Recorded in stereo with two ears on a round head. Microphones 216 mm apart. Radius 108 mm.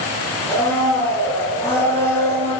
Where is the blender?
10° left (ahead or behind), 9.5 m.